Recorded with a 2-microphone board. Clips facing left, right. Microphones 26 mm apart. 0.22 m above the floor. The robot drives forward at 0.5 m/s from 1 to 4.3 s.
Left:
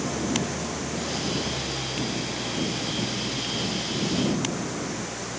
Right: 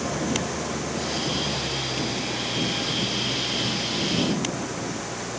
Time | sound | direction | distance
0.0 | an engine running | 10° right (ahead or behind) | ?